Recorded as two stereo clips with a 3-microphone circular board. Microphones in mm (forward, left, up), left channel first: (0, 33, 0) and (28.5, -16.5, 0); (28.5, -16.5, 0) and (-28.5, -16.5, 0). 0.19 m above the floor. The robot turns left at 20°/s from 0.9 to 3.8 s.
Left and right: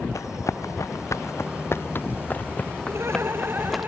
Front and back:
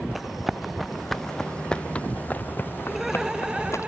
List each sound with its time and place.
0.1 s running footsteps: 90° left; by 3.9 s 30° left
2.9 s laughter: 95° right; by 3.9 s 115° right